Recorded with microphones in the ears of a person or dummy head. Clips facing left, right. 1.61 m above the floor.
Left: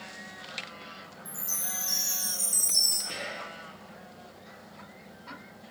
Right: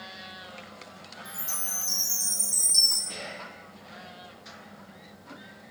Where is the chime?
Centre (ahead or behind), 0.6 m.